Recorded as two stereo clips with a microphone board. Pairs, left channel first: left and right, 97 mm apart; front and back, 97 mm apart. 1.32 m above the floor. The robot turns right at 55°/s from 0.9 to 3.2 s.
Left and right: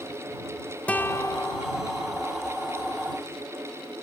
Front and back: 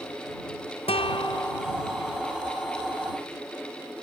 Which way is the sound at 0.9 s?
15° left.